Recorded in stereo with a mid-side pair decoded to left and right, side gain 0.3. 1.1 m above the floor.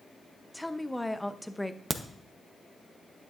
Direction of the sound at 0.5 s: 5° left.